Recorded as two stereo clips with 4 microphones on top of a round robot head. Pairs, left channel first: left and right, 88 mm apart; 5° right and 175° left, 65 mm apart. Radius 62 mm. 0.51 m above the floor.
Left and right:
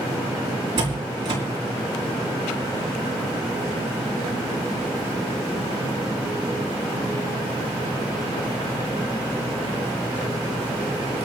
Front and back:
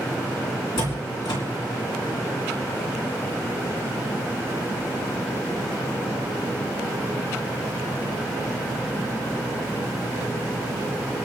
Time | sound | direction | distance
0.8 | a door slam | 40° right | 3.5 m